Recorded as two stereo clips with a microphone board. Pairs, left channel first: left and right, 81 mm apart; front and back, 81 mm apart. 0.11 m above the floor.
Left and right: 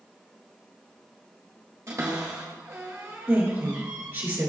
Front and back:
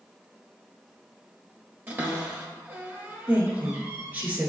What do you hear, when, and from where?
1.9 s a cupboard door: 125° right, 1.2 m
3.3 s a woman speaking: 130° right, 1.3 m